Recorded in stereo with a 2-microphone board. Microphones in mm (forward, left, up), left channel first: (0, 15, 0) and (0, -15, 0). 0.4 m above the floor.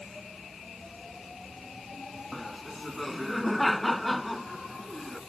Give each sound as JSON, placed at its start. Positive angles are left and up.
{"t": 2.3, "sound": "laughter", "side_deg": 5}